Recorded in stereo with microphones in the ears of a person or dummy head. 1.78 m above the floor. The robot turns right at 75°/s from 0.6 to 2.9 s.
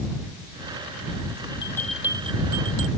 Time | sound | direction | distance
1.6 | a bell | 155° left | ?